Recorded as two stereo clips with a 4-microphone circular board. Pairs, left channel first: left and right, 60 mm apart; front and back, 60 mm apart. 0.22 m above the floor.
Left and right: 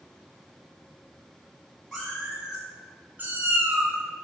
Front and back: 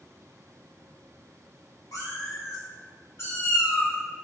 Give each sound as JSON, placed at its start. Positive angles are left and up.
{"t": 1.9, "sound": "a cat meowing", "azimuth_deg": -5, "distance_m": 1.5}